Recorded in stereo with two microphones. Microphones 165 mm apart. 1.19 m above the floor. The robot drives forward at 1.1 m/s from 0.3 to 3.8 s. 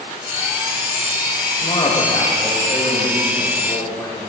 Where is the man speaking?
35° left (ahead or behind), 1.8 m; by 4.3 s 15° left (ahead or behind), 4 m.